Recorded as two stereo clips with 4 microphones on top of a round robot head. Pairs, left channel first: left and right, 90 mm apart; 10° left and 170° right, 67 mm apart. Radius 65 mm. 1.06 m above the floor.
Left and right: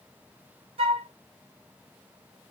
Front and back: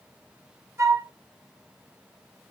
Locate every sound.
0.8 s a flute: 115° right, 0.6 m